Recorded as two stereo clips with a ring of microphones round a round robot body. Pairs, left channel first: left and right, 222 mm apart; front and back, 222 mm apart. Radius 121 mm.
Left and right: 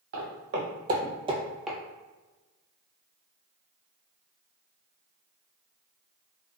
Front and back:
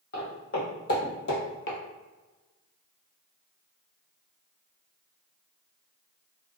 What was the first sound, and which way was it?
Footsteps, 60° right.